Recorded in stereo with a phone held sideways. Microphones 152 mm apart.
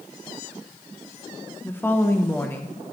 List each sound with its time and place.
1.6 s a woman speaking: 15° left (ahead or behind), 0.8 m